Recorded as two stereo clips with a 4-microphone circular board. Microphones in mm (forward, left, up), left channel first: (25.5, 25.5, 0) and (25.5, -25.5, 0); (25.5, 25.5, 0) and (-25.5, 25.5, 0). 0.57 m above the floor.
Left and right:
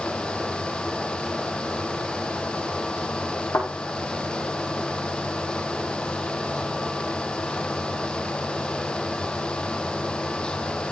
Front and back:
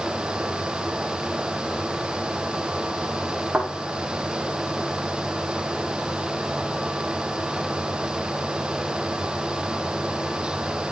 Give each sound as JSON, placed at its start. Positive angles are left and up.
{"t": 3.5, "sound": "a thud", "azimuth_deg": 110, "distance_m": 5.0}